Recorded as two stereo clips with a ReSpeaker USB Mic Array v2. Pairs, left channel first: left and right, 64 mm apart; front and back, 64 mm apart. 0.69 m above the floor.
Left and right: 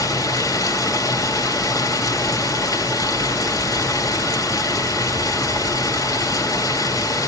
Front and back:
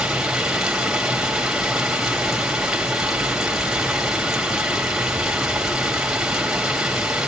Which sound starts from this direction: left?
Running water, at 0.0 s.